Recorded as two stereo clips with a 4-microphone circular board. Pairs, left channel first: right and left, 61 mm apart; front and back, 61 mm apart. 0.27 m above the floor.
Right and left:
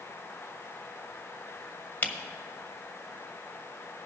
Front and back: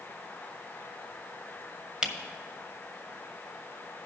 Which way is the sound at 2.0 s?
115° right.